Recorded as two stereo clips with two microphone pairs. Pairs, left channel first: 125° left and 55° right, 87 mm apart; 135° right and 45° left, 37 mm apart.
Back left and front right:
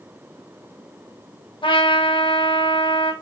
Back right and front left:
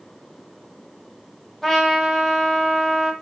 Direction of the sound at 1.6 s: 140° left.